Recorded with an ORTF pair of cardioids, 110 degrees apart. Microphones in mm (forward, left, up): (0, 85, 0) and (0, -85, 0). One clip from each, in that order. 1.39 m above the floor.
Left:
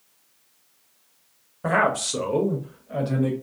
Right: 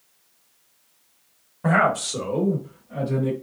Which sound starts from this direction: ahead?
A man speaking, at 1.6 s.